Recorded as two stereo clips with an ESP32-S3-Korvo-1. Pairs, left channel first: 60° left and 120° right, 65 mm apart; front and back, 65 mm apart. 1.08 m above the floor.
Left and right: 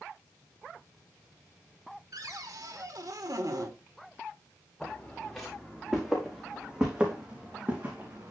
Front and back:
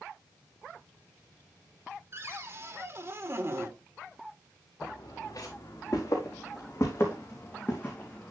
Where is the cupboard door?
135° right, 1.3 m.